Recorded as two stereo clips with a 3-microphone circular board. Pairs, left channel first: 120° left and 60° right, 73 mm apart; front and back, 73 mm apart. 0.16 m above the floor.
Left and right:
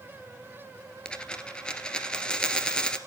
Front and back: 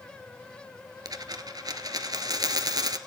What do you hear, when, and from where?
1.1 s a dropped coin: 165° right, 1.2 m